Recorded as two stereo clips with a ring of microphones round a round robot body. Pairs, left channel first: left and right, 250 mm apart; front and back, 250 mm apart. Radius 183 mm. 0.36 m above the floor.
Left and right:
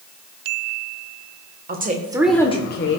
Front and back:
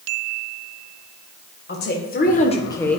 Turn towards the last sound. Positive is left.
turn(degrees=85)